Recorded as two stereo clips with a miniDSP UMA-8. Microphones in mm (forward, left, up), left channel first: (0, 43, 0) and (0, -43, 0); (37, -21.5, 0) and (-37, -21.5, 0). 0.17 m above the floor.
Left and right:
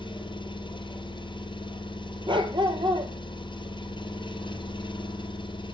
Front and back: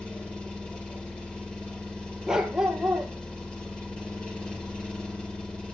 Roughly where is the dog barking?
Right.